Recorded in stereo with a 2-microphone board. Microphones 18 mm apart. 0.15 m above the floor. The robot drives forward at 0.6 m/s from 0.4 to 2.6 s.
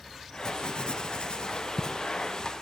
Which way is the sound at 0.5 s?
45° left (ahead or behind).